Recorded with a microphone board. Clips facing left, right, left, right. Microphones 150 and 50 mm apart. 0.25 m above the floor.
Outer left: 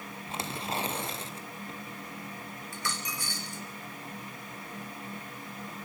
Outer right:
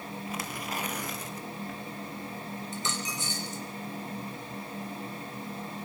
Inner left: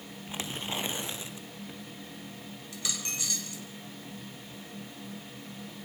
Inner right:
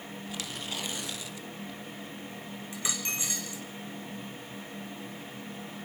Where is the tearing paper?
30° left (ahead or behind), 2.0 m.